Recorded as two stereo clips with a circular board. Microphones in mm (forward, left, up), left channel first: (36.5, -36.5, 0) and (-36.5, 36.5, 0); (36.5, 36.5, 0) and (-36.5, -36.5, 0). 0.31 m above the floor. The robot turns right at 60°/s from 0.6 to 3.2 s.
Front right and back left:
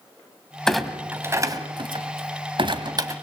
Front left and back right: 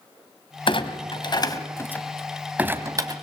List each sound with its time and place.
0.7 s a clunk: 35° left, 2.0 m; by 3.1 s 175° right, 2.0 m